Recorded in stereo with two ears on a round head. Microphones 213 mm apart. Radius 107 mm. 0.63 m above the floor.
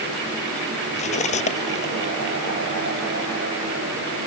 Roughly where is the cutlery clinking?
Left.